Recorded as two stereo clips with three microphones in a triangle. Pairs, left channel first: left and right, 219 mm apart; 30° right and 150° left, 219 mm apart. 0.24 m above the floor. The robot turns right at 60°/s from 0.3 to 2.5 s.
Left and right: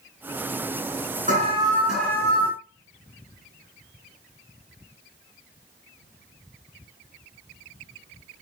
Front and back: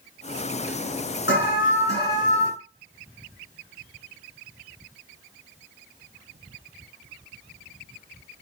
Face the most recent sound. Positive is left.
turn(degrees=30)